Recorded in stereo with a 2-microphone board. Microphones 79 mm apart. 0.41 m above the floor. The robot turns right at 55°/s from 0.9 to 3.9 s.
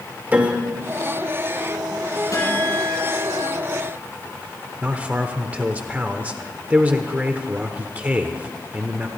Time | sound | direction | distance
0.3 | a piano | 20° right (ahead or behind) | 1.4 m
2.3 | a guitar | 45° left | 7.5 m
4.8 | a man speaking | 20° right (ahead or behind) | 0.9 m